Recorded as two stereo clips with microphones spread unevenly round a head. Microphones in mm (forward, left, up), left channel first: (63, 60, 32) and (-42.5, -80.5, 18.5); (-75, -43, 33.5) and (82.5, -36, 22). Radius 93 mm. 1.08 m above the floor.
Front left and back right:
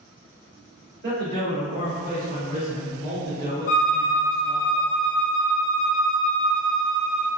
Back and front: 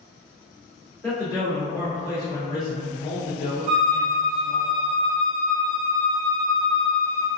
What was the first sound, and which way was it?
A man speaking, 90° right.